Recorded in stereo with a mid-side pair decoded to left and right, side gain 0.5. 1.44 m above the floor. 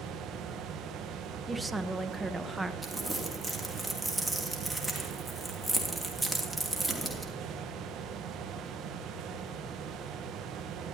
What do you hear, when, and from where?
0.0 s a fan: 70° right, 1.1 m
1.5 s a woman speaking: 15° right, 1.0 m
2.8 s crumpling: 10° right, 3 m